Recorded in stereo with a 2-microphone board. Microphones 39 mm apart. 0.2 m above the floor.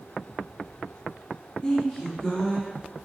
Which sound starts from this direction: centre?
A woman speaking, at 1.6 s.